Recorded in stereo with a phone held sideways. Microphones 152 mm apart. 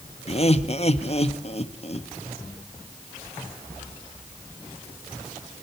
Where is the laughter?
45° left (ahead or behind), 1.6 m.